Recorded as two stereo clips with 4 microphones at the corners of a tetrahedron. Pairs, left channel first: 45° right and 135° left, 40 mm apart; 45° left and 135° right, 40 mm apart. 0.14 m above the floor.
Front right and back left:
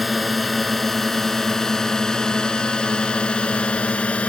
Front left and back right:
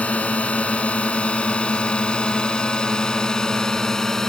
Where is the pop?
I don't hear a pop.